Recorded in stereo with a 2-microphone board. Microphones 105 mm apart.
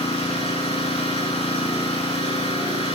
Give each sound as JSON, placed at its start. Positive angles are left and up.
{"t": 0.0, "sound": "an engine running", "side_deg": 60, "distance_m": 6.5}